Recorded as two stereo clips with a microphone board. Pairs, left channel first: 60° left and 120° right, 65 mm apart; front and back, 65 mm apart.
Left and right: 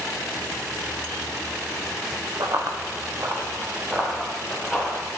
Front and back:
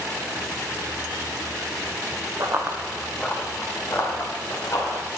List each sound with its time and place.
2.4 s running footsteps: 140° right, 1.3 m; by 5.0 s 35° right, 3.5 m